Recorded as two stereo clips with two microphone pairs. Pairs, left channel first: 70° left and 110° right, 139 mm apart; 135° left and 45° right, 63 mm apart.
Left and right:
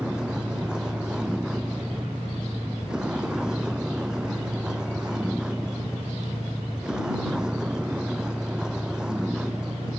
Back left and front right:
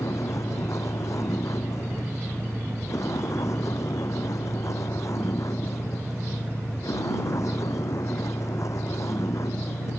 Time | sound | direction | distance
0.0 | a vehicle | 165° left | ?